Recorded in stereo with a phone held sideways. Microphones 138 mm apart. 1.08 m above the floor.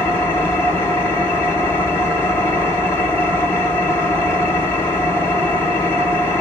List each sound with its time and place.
0.0 s an engine running: 15° left (ahead or behind), 1.6 m